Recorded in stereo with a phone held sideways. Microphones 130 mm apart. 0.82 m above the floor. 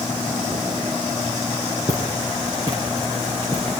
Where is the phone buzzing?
No phone buzzing in this recording.